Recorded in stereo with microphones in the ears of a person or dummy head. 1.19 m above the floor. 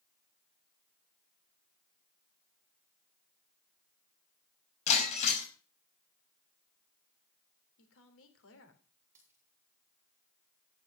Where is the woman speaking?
80° left, 3.5 m.